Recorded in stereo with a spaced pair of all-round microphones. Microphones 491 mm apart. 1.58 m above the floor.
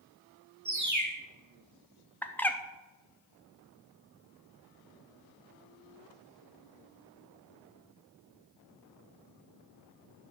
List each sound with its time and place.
0.7 s a bird: 35° right (ahead or behind), 1.4 m
2.2 s a bird: 5° left (ahead or behind), 0.6 m